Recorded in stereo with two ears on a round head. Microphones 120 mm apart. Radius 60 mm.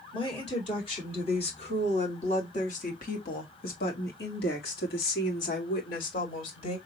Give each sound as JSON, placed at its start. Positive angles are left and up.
{"t": 0.1, "sound": "a woman speaking", "side_deg": 35, "distance_m": 3.0}